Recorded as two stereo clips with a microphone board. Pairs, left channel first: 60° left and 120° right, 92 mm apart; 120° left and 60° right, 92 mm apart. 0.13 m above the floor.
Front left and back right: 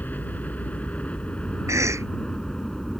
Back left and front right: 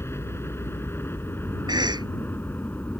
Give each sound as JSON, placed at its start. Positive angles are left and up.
{"t": 0.0, "sound": "a helicopter", "azimuth_deg": 110}
{"t": 1.7, "sound": "a cough", "azimuth_deg": -75}